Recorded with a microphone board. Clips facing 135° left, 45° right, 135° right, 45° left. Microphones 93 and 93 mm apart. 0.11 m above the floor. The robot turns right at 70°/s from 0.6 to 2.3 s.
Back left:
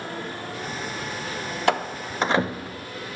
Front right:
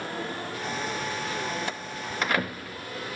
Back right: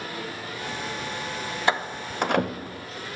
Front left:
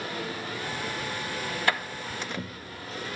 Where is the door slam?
155° left; by 2.9 s 160° right.